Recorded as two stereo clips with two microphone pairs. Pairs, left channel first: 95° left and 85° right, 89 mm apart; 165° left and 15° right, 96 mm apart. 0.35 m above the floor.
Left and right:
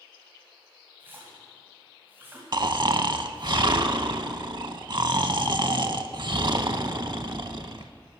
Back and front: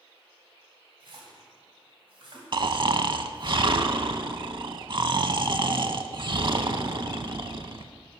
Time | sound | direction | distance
1.0 | a splash | 20° right | 2.5 m
2.5 | snoring | 50° right | 0.5 m